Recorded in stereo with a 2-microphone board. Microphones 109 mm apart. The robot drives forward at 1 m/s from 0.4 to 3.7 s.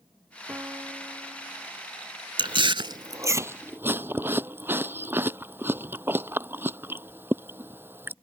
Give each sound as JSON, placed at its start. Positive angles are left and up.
{"t": 0.5, "sound": "a piano", "side_deg": -20}
{"t": 2.4, "sound": "chewing", "side_deg": -50}